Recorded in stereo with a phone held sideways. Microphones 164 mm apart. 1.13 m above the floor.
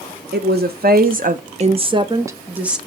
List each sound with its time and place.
0.3 s a woman speaking: 75° right (ahead or behind), 1.1 m; by 2.8 s 5° right (ahead or behind), 1.1 m